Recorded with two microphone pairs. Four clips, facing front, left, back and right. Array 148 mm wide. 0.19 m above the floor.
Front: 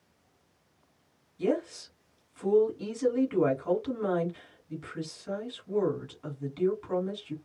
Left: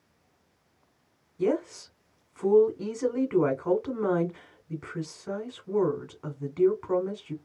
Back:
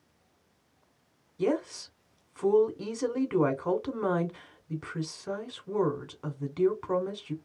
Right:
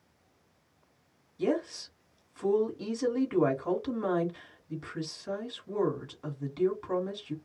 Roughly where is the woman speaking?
Behind.